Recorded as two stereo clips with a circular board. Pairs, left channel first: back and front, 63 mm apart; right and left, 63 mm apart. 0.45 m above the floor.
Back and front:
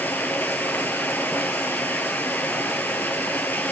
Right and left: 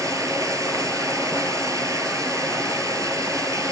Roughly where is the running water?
Behind left.